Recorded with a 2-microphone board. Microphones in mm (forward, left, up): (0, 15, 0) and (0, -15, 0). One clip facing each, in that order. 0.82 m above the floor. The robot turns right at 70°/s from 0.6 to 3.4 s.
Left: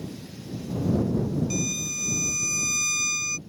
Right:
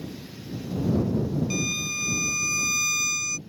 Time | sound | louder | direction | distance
1.5 | a violin | right 2 dB | 25° right (ahead or behind) | ?